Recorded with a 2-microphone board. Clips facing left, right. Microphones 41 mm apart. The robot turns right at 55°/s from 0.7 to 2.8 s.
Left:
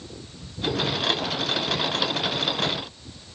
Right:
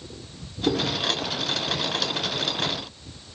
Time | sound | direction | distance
0.7 | chewing | 90° right | 2.5 m